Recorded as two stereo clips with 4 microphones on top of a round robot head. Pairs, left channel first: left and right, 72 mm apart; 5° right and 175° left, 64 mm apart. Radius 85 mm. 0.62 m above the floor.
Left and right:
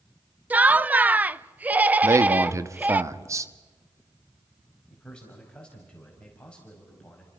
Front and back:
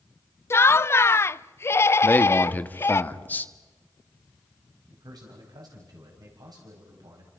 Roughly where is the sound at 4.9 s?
Behind.